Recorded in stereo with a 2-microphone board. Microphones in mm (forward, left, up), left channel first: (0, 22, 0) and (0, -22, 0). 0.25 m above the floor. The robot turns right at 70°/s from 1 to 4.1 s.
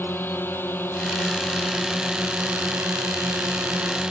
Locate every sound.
0.0 s a drone: 125° left; by 4.1 s 20° right